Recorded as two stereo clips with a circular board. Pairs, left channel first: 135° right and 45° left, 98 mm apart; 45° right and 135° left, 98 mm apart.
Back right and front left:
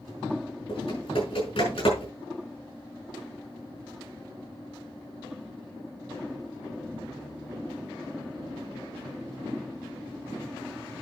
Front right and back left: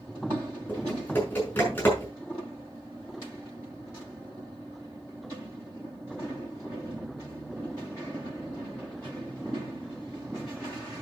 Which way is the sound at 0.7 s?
115° right.